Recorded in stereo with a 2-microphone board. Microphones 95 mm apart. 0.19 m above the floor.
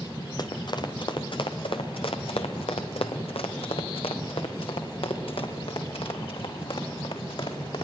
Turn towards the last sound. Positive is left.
turn(degrees=65)  # may be behind; listen again after turning